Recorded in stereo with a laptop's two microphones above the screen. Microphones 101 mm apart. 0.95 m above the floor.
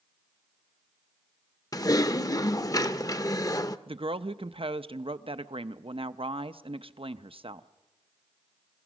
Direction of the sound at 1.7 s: 35° left (ahead or behind).